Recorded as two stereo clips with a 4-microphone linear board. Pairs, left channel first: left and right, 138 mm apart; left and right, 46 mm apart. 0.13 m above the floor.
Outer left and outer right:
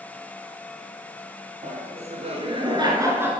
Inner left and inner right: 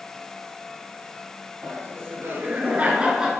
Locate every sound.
1.6 s laughter: 60° right (ahead or behind), 2.5 m; by 3.3 s 15° right (ahead or behind), 1.4 m